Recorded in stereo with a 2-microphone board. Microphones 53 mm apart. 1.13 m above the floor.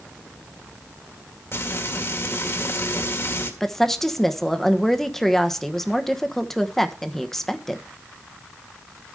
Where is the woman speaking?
5° left (ahead or behind), 1.0 m.